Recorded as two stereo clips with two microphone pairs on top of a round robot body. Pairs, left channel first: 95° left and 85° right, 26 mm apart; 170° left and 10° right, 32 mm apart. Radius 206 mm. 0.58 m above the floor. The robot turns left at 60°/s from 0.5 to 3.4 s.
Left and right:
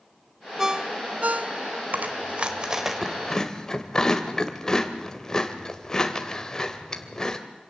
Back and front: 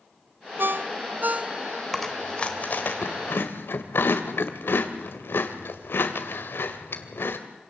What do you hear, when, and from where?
0.6 s a ringtone: 5° right, 0.6 m; by 1.8 s 80° right, 0.6 m
1.9 s chewing: 105° right, 1.7 m; by 7.4 s 170° left, 1.7 m